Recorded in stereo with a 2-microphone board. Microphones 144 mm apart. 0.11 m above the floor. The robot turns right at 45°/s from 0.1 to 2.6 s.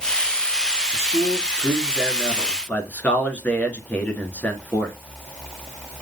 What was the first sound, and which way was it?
A man speaking, 20° right (ahead or behind).